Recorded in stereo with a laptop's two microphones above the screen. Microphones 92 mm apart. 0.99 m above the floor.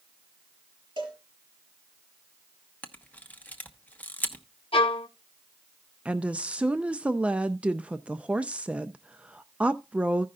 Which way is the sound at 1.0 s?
60° right (ahead or behind).